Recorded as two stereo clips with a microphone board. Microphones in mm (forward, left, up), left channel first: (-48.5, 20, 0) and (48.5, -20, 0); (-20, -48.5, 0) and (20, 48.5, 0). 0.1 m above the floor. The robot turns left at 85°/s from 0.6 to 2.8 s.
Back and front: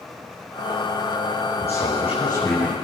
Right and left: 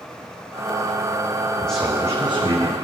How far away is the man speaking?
About 7.5 m.